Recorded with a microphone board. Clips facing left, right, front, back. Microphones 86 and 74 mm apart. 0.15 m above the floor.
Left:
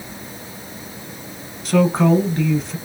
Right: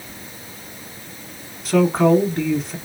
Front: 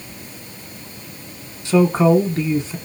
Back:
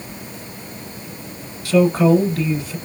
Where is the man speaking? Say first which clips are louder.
Even, even; 5° right, 1.1 m.